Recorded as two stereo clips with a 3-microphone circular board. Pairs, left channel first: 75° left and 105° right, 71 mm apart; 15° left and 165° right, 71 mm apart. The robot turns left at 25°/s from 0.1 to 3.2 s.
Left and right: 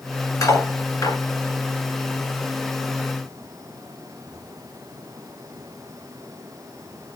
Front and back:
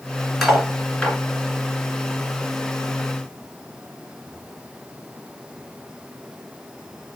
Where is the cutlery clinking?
110° left, 1.9 m; by 1.2 s 90° left, 1.9 m.